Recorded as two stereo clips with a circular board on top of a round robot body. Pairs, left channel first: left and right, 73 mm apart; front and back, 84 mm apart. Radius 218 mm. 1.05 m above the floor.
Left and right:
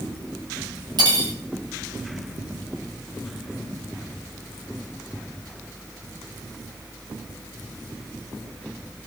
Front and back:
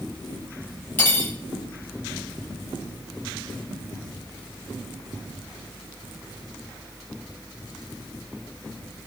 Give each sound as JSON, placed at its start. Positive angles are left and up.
{"t": 1.0, "sound": "cutlery clinking", "azimuth_deg": -70, "distance_m": 2.0}